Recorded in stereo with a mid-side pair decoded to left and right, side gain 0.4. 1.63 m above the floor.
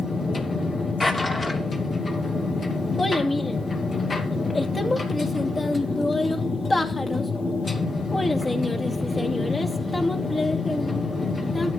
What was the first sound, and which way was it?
A machine running, 40° left.